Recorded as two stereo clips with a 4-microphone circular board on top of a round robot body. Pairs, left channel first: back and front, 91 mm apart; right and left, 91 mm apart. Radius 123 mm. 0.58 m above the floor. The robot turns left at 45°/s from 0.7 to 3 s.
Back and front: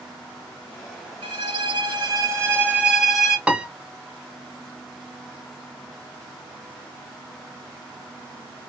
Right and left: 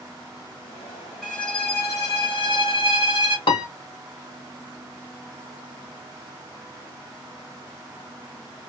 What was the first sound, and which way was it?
A violin, 5° right.